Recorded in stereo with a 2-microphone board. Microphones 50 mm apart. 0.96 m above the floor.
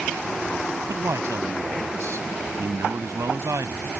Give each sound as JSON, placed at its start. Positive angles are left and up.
{"t": 0.9, "sound": "a man speaking", "side_deg": -75}